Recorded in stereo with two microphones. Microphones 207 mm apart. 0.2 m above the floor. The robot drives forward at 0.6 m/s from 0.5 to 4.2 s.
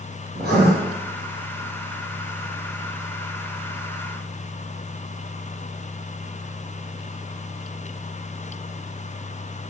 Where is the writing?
55° right (ahead or behind), 3.5 m.